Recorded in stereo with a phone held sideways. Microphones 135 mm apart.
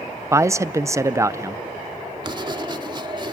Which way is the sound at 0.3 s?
20° right (ahead or behind).